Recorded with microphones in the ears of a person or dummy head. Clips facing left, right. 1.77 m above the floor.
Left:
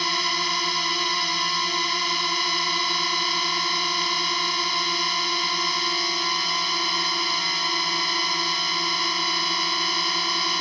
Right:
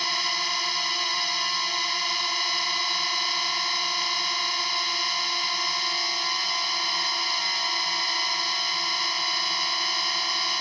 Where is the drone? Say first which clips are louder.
Left 5 dB; 65° left (ahead or behind).